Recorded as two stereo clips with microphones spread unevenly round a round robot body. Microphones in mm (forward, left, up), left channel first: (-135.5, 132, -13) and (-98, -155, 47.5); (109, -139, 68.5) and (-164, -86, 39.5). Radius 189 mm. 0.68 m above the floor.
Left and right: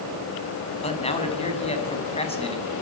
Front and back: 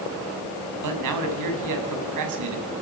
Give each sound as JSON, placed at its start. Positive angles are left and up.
{"t": 0.8, "sound": "a man speaking", "azimuth_deg": 165, "distance_m": 7.0}